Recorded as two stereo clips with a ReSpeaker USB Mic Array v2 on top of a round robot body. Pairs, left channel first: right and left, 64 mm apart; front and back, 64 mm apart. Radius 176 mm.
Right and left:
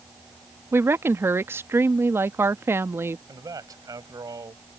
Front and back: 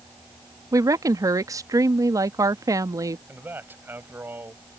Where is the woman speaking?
145° left.